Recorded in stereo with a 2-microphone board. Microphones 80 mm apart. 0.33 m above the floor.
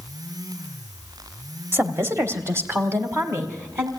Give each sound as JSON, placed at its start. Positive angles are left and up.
{"t": 1.7, "sound": "a woman speaking", "side_deg": -30, "distance_m": 1.2}